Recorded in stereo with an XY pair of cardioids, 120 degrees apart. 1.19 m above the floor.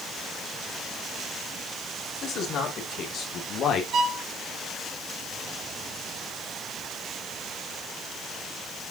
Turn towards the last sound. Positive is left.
turn(degrees=-55)